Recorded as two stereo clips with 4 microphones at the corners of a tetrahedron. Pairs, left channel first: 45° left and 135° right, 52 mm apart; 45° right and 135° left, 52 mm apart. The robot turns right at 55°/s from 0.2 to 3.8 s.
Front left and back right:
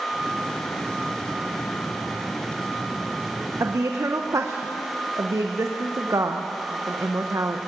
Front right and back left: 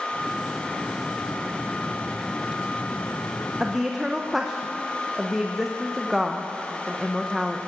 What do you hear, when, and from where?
3.6 s a woman speaking: 150° right, 0.8 m; by 7.6 s 140° right, 0.8 m